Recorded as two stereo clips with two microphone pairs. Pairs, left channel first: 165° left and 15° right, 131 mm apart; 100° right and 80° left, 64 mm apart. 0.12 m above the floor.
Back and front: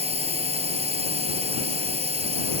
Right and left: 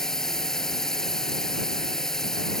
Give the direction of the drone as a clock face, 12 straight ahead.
1 o'clock.